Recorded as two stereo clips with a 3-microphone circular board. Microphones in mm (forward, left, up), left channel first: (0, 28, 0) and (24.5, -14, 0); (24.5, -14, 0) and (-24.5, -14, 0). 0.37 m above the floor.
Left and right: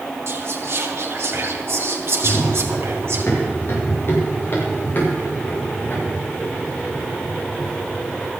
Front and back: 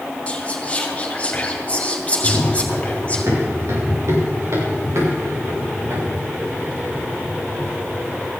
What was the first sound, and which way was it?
Whispering, 60° right.